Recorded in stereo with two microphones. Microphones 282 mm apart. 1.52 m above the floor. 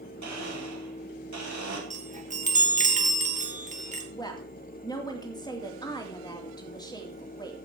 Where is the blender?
90° right, 4.5 m.